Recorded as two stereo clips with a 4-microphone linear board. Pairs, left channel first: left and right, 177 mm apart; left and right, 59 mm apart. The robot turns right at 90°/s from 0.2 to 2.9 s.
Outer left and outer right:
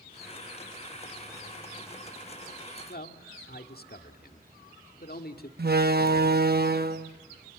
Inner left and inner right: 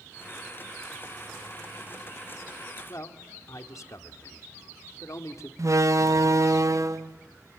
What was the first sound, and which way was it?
A man speaking, 60° left (ahead or behind).